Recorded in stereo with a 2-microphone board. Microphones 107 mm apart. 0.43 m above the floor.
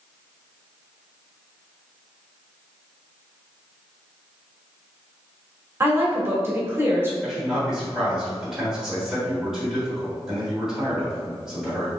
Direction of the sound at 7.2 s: 5° right (ahead or behind).